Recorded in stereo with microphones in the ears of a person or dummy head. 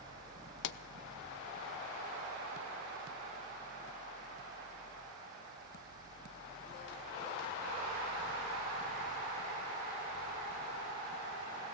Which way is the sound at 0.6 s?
60° left (ahead or behind).